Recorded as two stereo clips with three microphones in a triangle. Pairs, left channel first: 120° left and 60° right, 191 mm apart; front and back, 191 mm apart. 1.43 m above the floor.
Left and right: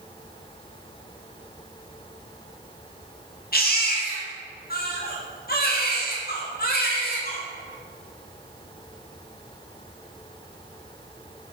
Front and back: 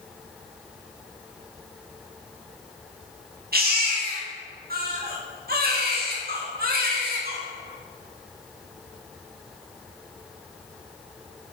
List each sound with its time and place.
3.5 s a baby crying: 150° left, 1.6 m